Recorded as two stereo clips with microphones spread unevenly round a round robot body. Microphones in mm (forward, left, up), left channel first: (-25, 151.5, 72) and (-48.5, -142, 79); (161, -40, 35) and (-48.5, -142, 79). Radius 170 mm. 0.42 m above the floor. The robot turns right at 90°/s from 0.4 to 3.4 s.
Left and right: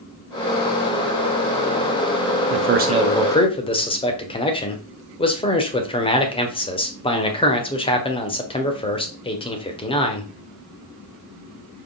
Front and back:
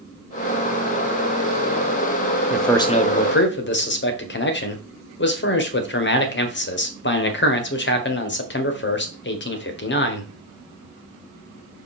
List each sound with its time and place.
2.5 s a man speaking: 65° right, 1.6 m; by 10.3 s 15° left, 1.6 m